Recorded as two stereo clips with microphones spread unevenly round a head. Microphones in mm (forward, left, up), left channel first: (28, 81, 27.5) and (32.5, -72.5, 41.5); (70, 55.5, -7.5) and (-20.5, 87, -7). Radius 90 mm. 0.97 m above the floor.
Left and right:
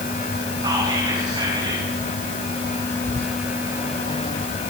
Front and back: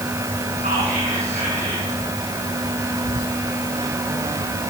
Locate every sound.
0.6 s whispering: 155° right, 9.5 m
3.0 s whispering: 35° right, 3.5 m